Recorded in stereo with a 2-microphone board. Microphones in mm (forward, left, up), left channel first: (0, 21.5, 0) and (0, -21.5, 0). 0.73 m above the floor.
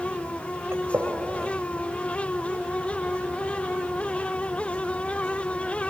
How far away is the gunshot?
About 2.5 m.